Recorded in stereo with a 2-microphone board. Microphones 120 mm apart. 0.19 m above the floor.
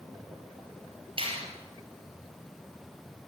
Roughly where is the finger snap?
Right.